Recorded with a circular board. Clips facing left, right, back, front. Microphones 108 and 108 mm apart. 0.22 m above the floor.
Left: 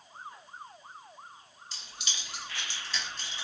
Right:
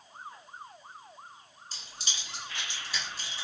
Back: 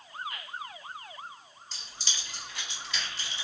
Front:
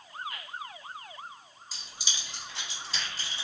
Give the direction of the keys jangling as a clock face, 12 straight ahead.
3 o'clock.